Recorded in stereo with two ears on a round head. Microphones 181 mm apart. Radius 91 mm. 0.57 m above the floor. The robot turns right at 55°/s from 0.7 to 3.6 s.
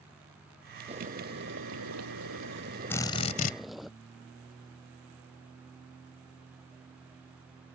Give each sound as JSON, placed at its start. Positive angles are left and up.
{"t": 0.9, "sound": "boiling", "azimuth_deg": -150}
{"t": 2.9, "sound": "a drill", "azimuth_deg": 10}